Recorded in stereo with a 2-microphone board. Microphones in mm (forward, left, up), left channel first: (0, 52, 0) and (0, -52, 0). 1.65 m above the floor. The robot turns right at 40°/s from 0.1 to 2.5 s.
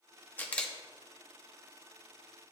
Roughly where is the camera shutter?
Centre.